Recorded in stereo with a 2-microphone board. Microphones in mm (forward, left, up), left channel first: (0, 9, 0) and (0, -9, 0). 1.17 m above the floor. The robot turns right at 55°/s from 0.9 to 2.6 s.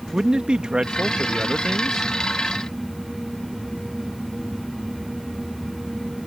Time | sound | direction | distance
0.1 | a man speaking | 90° right | ?